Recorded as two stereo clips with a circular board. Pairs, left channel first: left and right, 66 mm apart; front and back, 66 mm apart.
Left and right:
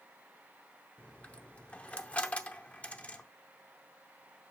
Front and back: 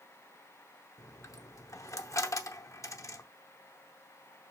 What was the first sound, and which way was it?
A dropped coin, 20° left.